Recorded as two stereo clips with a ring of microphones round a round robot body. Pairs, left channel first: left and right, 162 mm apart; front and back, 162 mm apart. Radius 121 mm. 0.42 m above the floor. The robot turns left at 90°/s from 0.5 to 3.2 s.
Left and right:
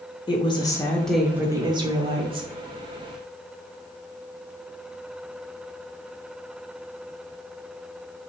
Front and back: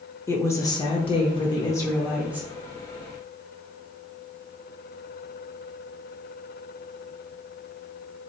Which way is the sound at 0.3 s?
60° left.